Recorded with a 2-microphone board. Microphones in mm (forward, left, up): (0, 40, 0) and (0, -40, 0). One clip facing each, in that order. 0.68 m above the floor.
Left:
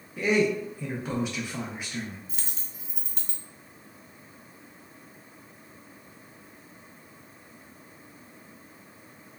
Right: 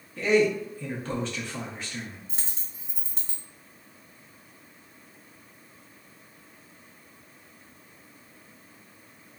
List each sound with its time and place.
0.2 s a man speaking: 15° left (ahead or behind), 0.5 m
2.3 s a dropped coin: 30° right (ahead or behind), 0.6 m